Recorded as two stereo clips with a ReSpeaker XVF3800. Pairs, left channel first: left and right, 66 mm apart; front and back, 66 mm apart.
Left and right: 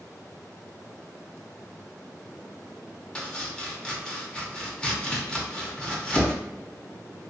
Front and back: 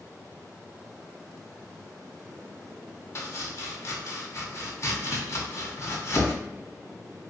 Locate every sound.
3.1 s chopping: 20° left, 0.7 m